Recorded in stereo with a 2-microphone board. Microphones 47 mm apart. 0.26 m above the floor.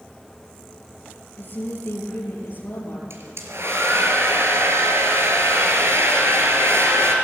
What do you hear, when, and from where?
1.4 s a woman speaking: 40° left (ahead or behind), 5.5 m
3.1 s a hair dryer: 65° right (ahead or behind), 4 m